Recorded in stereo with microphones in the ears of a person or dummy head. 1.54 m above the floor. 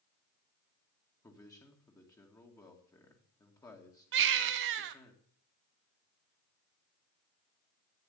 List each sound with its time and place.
1.2 s a man speaking: 15° left (ahead or behind), 2.0 m
4.1 s a baby crying: 65° right (ahead or behind), 1.0 m